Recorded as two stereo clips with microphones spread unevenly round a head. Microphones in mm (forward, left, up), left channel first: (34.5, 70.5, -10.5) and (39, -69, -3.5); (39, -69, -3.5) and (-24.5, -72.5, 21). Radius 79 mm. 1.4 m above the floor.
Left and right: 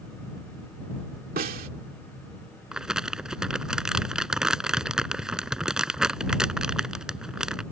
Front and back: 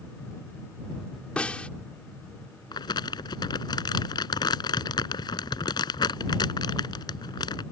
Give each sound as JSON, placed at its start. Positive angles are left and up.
{"t": 1.4, "sound": "a snare drum", "azimuth_deg": -75}
{"t": 2.7, "sound": "crumpling", "azimuth_deg": -5}